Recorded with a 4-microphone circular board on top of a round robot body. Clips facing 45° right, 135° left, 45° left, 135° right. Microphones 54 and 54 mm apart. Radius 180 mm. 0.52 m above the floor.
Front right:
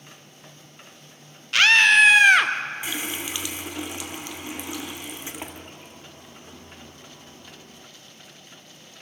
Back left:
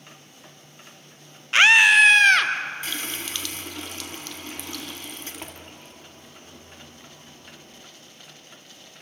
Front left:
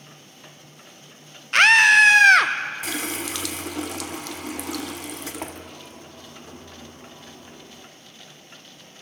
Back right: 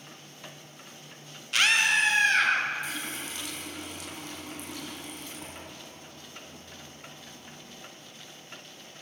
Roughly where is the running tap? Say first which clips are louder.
Front right 2 dB, front left 7 dB; ahead left.